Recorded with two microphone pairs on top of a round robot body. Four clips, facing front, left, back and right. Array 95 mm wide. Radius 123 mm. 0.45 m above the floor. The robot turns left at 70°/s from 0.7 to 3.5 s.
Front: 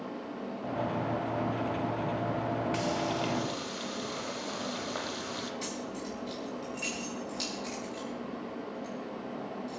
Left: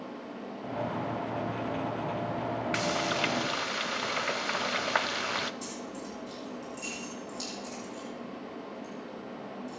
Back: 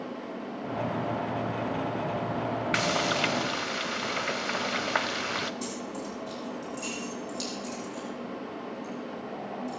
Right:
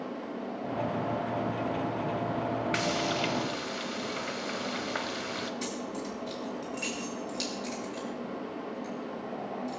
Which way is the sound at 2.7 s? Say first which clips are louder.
Even, back 3 dB; 175° left.